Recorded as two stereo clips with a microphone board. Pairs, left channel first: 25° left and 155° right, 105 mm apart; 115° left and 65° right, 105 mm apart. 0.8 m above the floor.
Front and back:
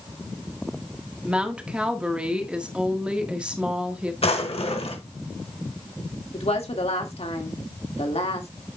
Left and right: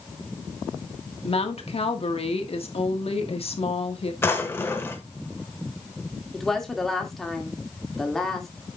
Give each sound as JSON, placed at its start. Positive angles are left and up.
{"t": 1.2, "sound": "a woman speaking", "azimuth_deg": 125, "distance_m": 1.4}
{"t": 4.2, "sound": "a drawer", "azimuth_deg": 45, "distance_m": 1.4}
{"t": 6.3, "sound": "a woman speaking", "azimuth_deg": 25, "distance_m": 1.9}